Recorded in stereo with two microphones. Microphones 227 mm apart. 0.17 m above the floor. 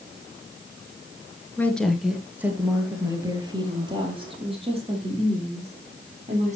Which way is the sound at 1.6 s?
10° left (ahead or behind).